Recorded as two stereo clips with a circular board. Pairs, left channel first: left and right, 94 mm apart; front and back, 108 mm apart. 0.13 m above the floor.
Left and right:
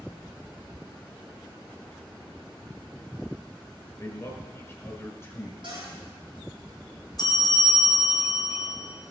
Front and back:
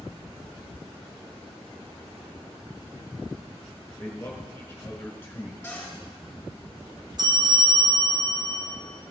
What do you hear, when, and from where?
4.0 s a man speaking: 55° left, 1.3 m
5.6 s a cupboard door: 70° right, 4 m
7.2 s a bell: 130° left, 1.8 m